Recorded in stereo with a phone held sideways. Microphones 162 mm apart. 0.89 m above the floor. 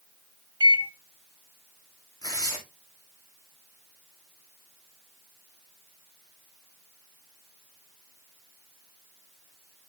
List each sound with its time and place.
0.6 s a microwave: 30° right (ahead or behind), 0.5 m
2.2 s tearing paper: 25° left (ahead or behind), 2.5 m